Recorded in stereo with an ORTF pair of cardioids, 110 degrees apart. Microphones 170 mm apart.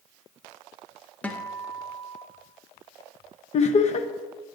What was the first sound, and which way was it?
A guitar, 10° left.